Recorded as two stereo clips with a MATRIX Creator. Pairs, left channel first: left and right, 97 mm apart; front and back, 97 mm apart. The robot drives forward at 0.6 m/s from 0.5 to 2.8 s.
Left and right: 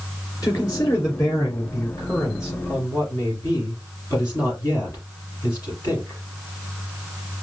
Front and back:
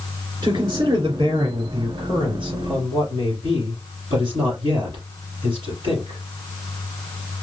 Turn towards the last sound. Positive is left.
turn(degrees=155)